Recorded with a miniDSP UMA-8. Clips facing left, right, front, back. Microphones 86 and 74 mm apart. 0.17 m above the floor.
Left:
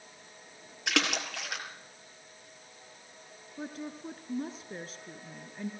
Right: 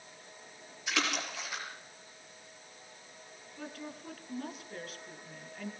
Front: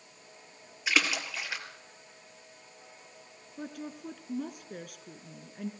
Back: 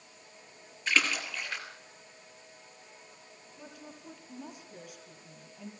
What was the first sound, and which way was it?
A splash, 80° left.